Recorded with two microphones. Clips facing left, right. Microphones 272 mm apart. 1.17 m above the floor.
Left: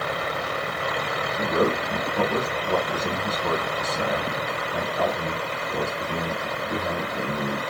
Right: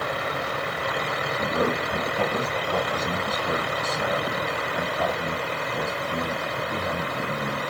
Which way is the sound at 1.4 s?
75° left (ahead or behind).